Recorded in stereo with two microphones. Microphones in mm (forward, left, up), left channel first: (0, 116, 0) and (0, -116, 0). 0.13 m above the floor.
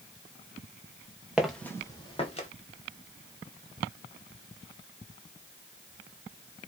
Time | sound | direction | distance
1.4 | footsteps | 5° right (ahead or behind) | 0.9 m